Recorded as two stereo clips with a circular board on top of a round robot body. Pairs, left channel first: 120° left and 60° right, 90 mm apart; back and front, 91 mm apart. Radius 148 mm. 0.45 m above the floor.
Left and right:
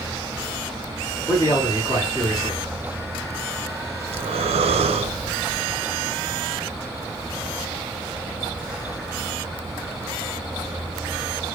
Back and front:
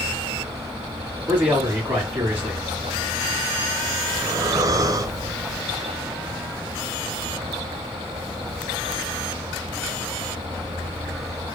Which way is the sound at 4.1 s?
55° right.